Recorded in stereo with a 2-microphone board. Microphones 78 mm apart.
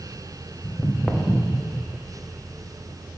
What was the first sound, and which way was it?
Footsteps, 25° left (ahead or behind).